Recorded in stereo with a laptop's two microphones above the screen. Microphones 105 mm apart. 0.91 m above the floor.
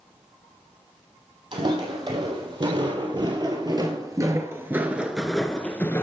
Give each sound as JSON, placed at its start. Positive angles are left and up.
{"t": 1.5, "sound": "footsteps", "side_deg": -55, "distance_m": 2.5}